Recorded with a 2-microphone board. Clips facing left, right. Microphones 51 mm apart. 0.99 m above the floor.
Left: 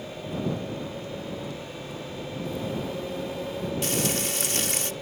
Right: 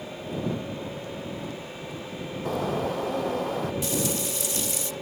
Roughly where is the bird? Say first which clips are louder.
Right 6 dB; right.